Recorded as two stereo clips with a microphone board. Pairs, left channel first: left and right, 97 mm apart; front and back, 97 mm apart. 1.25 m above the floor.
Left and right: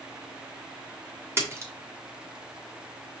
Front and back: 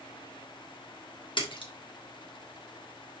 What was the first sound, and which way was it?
A splash, 30° right.